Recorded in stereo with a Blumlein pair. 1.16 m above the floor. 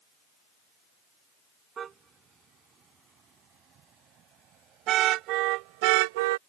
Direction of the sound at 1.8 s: 25° right.